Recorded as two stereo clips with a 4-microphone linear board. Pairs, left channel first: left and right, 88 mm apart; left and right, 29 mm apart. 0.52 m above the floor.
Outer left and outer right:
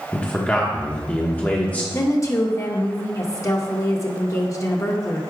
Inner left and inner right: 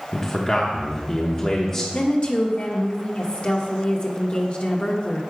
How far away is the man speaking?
About 0.9 m.